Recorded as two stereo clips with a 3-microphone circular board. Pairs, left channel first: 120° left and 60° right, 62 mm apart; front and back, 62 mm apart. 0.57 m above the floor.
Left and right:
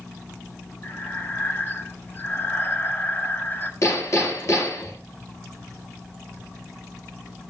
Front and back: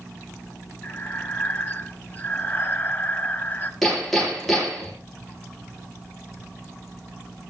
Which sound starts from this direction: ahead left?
Breathing, at 0.8 s.